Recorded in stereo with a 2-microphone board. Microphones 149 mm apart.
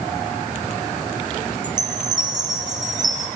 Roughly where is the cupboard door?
I don't hear a cupboard door.